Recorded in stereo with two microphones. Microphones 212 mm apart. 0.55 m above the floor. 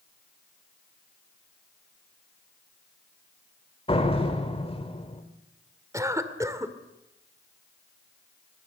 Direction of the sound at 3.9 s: 25° left (ahead or behind).